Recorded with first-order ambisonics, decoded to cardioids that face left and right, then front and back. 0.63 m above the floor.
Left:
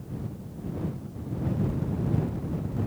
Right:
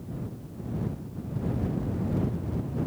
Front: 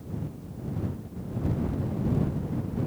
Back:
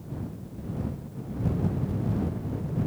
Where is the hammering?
No hammering in this recording.